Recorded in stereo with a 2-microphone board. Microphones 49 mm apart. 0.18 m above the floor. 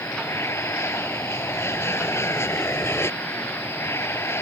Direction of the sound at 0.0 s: 65° left (ahead or behind).